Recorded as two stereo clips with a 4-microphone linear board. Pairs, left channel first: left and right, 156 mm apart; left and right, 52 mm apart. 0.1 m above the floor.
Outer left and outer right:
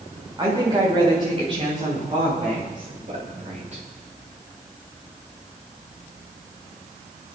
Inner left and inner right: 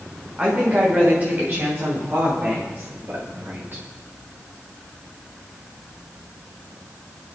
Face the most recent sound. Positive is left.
turn(degrees=-45)  # may be behind; listen again after turning